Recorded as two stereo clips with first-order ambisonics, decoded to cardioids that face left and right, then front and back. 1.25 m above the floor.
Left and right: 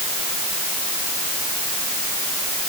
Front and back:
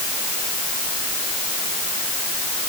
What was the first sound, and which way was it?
Only background noise.